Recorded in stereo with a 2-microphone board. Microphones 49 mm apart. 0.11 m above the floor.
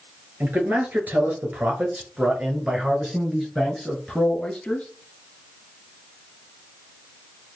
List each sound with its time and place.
0.4 s a man speaking: 40° right (ahead or behind), 1.9 m; by 4.9 s 15° left (ahead or behind), 1.6 m